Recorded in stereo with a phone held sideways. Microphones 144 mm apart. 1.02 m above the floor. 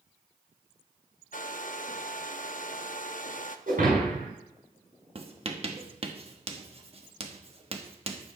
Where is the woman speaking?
No woman speaking in this recording.